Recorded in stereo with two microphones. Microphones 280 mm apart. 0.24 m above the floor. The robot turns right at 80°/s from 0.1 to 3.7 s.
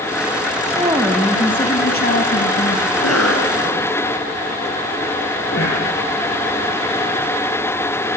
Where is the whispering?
45° left (ahead or behind), 5 m.